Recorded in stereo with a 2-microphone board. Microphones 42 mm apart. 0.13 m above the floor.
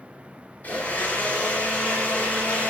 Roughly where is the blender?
Left.